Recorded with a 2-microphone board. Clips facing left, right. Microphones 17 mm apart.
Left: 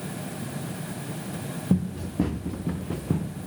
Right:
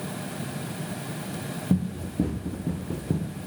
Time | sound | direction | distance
1.7 | running footsteps | 65° left (ahead or behind) | 2.5 m